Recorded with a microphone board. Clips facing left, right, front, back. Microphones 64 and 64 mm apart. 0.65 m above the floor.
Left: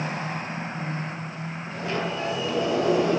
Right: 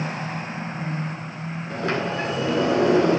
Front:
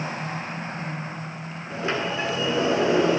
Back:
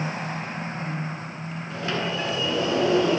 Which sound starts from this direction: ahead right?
A sliding door, at 1.7 s.